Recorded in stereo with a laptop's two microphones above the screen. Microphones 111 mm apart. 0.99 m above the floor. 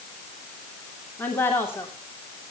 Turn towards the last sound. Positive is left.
turn(degrees=20)  # may be behind; listen again after turning